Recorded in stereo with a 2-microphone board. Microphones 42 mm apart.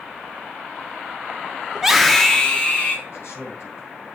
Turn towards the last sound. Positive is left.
turn(degrees=80)